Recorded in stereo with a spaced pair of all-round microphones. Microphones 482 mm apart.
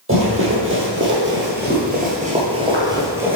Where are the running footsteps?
25° right (ahead or behind), 1.7 m; by 3.4 s 5° right (ahead or behind), 1.3 m.